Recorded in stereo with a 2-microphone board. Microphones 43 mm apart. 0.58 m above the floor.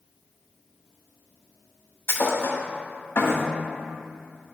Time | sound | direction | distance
2.1 | a thud | 65° left (ahead or behind) | 1.2 m